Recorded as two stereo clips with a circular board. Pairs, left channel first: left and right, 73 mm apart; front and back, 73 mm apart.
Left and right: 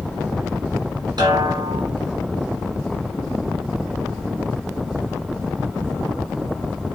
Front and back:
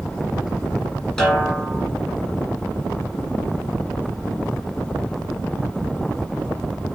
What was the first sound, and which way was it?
A snare drum, 80° right.